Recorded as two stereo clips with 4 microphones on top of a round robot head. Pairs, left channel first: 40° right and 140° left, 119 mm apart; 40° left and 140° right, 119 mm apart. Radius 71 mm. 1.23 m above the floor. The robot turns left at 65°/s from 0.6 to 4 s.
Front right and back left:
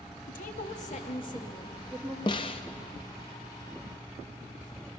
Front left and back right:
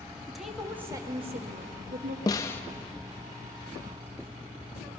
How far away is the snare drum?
About 0.6 m.